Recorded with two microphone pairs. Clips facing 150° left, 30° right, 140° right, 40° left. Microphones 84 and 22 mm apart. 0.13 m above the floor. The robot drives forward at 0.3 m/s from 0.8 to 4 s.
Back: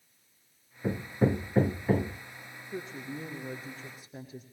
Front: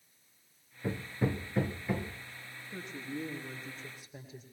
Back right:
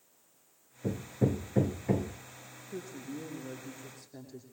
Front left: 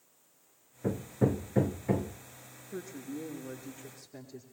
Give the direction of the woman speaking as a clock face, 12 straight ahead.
8 o'clock.